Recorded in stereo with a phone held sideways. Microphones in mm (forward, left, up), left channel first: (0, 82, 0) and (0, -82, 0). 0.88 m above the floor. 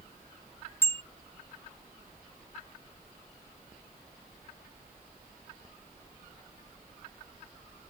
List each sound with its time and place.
0.8 s a bicycle bell: 15° left (ahead or behind)